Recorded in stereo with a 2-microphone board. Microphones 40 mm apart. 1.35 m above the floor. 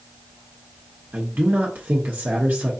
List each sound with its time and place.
1.1 s a man speaking: 50° right (ahead or behind), 0.8 m